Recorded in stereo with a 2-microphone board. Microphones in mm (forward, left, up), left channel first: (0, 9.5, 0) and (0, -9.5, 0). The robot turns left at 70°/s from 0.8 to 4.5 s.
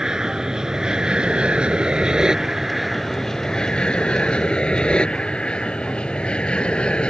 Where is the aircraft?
35° right (ahead or behind); by 7.1 s 65° left (ahead or behind).